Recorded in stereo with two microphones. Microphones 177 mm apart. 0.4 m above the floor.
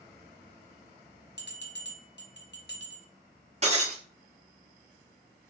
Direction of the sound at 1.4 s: 75° left (ahead or behind).